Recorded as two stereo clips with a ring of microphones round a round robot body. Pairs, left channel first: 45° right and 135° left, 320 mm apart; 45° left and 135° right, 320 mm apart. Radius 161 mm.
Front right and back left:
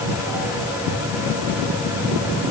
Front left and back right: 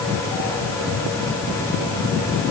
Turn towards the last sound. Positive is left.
No sound to turn to.